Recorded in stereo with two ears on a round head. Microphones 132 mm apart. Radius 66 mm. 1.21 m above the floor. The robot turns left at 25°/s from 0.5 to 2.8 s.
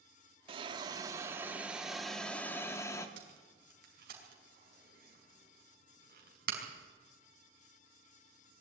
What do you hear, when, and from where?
0.5 s a hiss: 145° right, 1.6 m; by 3.1 s 160° left, 1.6 m
3.2 s tape being pulled: 65° right (ahead or behind), 5 m